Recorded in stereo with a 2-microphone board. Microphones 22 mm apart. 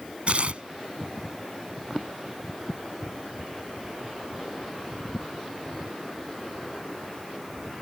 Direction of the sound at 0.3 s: 60° right (ahead or behind).